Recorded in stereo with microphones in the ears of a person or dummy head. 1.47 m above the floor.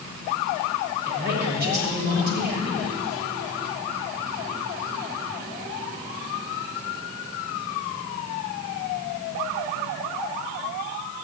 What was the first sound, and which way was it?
A man speaking, 55° right (ahead or behind).